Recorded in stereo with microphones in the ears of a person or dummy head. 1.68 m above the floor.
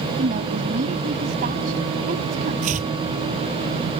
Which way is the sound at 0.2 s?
50° right (ahead or behind).